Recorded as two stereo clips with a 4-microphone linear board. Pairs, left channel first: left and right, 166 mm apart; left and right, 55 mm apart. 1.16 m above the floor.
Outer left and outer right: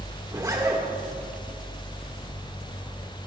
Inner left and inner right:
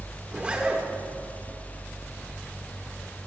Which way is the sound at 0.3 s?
20° right (ahead or behind).